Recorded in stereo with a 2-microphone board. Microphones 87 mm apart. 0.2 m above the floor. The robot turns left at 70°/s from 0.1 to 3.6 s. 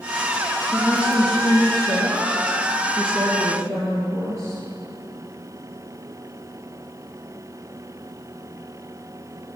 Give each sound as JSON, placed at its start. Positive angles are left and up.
{"t": 0.7, "sound": "a woman speaking", "azimuth_deg": 165, "distance_m": 3.0}